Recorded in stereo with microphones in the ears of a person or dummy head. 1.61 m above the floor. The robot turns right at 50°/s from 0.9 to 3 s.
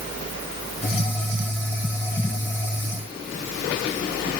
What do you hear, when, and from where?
Only background noise.